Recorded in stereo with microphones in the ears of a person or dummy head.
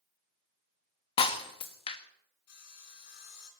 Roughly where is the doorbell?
No doorbell in this recording.